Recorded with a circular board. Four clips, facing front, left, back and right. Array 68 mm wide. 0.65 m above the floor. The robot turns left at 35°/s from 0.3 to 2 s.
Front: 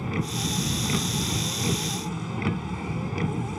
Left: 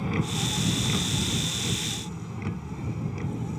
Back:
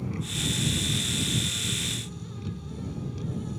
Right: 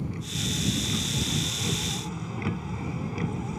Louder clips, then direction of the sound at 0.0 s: Left 5 dB, front 4 dB; 45° left.